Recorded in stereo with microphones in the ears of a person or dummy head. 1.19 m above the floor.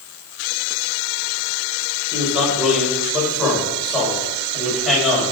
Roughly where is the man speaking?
Centre.